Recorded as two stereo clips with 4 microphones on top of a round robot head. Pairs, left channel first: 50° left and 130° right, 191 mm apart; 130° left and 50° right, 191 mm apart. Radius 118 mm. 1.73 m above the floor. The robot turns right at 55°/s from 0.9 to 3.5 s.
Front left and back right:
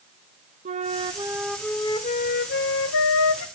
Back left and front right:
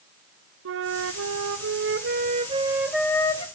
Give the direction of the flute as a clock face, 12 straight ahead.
2 o'clock.